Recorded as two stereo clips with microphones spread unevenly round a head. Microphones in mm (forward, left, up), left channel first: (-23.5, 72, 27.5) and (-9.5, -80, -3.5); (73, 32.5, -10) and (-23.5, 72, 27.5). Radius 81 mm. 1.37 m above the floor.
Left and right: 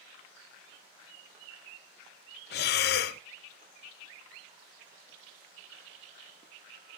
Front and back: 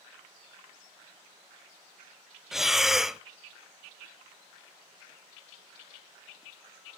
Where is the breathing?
65° left, 0.7 m.